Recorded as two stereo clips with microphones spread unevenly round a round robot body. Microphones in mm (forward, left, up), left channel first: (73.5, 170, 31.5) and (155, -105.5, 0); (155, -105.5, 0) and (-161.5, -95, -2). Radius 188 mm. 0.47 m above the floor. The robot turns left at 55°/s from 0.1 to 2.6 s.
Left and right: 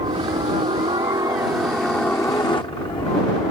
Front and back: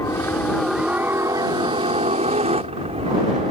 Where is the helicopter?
60° right; by 3.5 s 160° left.